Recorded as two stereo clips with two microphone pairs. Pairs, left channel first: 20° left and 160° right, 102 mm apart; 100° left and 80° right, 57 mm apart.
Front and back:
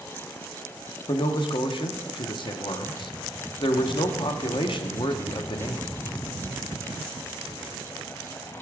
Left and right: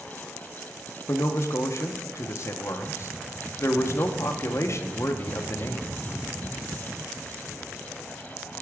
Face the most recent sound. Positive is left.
turn(degrees=60)